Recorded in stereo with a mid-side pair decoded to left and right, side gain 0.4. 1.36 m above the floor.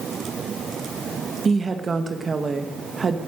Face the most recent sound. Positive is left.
turn(degrees=-40)